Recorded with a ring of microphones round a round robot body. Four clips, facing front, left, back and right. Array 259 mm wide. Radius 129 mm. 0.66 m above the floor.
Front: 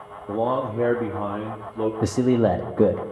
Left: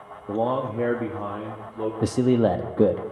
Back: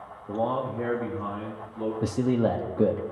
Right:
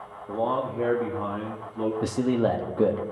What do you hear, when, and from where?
0.3 s a man speaking: 50° left, 0.8 m; by 1.9 s 5° left, 1.4 m
2.0 s a man speaking: 40° left, 0.6 m